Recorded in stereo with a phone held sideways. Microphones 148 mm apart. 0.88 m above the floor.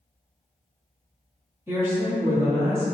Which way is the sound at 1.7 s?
15° right (ahead or behind).